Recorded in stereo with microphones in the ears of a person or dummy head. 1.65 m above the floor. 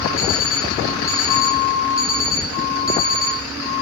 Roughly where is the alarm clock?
Centre.